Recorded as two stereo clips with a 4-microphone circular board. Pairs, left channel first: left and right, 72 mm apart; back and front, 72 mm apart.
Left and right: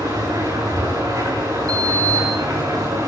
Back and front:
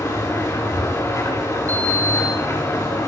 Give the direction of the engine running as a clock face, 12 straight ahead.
4 o'clock.